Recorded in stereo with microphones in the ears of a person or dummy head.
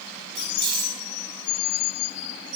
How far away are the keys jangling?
About 5 m.